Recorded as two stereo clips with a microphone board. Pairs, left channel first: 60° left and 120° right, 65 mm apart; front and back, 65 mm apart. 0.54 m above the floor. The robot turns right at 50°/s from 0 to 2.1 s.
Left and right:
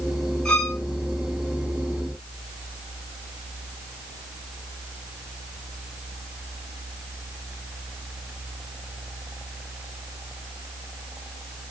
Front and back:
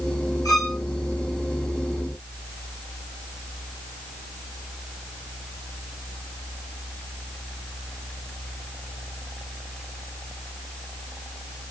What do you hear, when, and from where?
0.5 s a violin: 20° right, 4.5 m; by 0.8 s 5° right, 4.5 m